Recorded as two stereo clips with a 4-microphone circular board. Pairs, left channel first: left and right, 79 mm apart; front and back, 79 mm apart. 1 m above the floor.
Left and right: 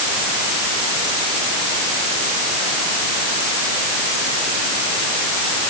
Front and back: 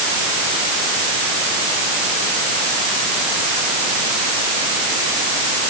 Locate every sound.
Only background noise.